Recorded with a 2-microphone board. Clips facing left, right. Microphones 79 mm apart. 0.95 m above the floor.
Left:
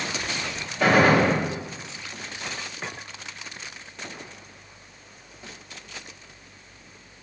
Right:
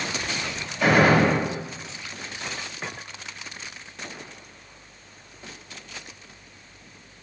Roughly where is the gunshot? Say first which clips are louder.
Even; left.